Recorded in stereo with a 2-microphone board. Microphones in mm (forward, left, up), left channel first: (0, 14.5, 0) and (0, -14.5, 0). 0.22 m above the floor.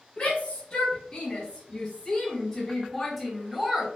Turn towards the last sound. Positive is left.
turn(degrees=-10)  # may be behind; listen again after turning